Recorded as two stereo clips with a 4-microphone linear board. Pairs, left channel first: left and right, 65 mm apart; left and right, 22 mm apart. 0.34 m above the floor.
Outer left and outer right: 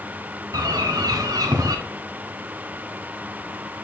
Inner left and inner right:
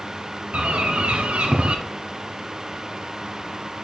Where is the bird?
70° right (ahead or behind), 1.1 m.